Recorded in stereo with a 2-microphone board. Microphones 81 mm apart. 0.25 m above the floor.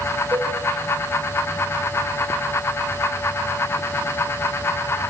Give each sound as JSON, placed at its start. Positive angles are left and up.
{"t": 0.3, "sound": "a cowbell", "side_deg": -40, "distance_m": 5.5}